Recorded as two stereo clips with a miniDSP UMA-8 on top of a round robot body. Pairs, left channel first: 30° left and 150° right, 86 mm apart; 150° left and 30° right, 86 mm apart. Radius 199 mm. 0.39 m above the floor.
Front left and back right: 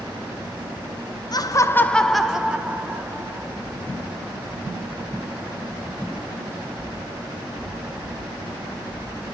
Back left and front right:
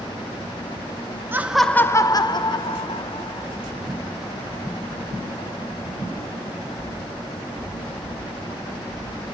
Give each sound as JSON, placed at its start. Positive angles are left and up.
{"t": 1.3, "sound": "laughter", "azimuth_deg": 25, "distance_m": 1.2}